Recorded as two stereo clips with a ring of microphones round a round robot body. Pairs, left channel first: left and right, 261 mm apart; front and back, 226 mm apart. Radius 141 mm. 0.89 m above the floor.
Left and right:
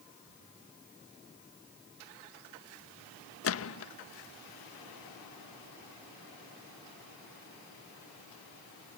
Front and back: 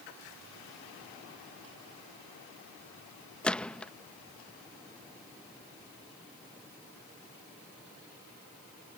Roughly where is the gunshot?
Left.